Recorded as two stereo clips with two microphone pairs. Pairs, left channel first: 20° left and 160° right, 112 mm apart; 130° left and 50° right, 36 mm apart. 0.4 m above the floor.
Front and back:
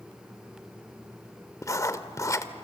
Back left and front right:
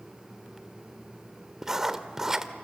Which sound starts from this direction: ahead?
Writing, at 1.6 s.